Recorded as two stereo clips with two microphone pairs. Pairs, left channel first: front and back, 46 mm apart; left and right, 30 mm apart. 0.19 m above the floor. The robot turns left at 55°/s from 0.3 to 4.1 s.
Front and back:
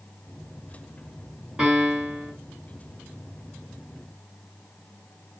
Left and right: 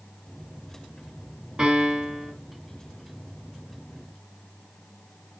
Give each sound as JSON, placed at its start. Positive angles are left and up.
{"t": 1.6, "sound": "a piano", "azimuth_deg": -120, "distance_m": 2.0}